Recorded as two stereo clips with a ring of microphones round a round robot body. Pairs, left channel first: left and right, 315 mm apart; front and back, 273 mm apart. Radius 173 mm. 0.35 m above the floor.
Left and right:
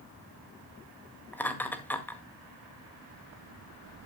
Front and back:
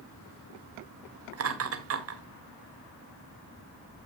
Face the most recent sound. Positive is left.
turn(degrees=175)